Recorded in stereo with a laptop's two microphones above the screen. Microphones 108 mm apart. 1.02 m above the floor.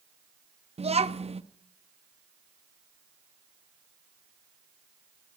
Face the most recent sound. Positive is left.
turn(degrees=-65)  # may be behind; listen again after turning